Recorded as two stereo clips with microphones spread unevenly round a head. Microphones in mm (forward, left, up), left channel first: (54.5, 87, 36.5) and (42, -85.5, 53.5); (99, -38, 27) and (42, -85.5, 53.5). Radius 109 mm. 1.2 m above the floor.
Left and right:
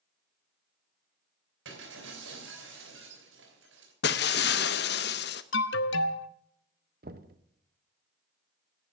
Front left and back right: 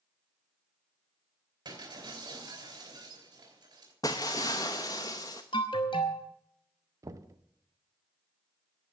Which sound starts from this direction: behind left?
Breaking glass, at 4.0 s.